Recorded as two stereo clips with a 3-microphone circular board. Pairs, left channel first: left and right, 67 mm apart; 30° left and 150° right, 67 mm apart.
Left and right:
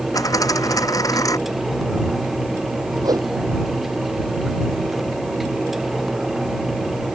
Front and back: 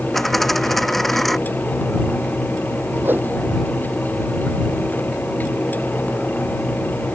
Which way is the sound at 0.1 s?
120° left.